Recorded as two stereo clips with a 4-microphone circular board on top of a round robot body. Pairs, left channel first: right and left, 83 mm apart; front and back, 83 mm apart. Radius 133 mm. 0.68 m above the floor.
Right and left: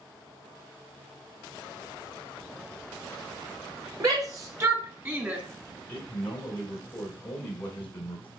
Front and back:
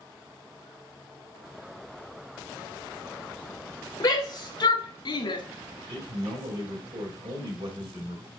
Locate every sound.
4.0 s a shout: 45° left, 3.5 m; by 5.4 s 20° left, 2.5 m
5.9 s a man speaking: 160° right, 4 m